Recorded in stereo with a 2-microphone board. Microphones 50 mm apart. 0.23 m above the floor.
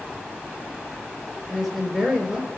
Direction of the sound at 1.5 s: Centre (ahead or behind).